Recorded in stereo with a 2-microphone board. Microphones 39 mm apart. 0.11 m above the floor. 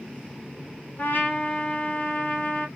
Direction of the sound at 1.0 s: 55° left (ahead or behind).